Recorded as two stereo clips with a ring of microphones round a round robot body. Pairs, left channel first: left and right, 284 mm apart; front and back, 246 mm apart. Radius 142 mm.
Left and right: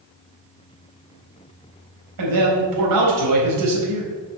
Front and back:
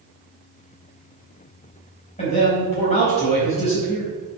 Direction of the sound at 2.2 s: 70° right.